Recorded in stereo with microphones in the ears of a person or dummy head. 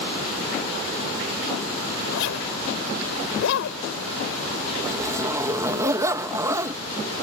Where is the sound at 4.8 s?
15° right (ahead or behind).